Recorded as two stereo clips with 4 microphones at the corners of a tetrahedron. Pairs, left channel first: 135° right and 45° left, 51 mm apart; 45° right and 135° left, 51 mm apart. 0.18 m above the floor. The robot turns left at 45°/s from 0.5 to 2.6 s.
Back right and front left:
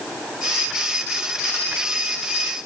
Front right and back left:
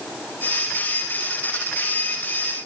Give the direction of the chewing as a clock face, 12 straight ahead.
I don't hear chewing.